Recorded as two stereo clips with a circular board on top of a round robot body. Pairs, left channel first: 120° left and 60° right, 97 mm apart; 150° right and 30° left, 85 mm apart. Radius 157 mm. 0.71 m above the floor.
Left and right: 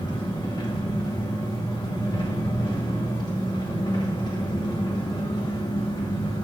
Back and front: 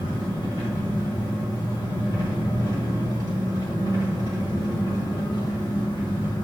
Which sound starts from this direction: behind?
An engine running, at 0.0 s.